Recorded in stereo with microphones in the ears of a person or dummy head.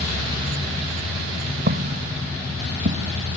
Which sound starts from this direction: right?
Footsteps, at 1.7 s.